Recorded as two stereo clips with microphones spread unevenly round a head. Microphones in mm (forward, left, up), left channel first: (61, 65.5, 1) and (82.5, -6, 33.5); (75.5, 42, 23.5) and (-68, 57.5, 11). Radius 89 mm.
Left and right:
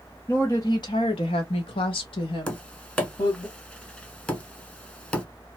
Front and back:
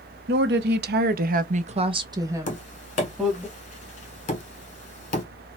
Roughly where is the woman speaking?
Behind.